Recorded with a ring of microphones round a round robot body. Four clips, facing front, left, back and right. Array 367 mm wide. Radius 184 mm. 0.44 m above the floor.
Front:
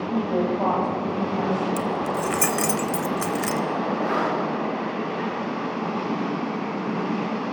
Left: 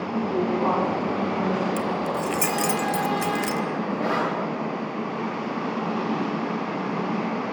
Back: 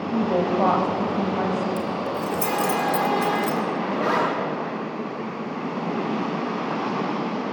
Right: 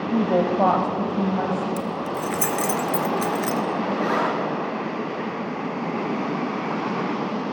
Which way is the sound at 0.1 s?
100° right.